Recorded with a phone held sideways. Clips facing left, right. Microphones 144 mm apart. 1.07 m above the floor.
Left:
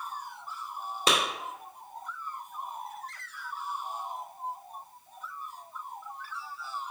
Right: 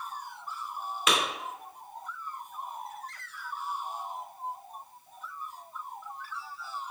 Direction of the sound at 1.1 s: 35° left (ahead or behind).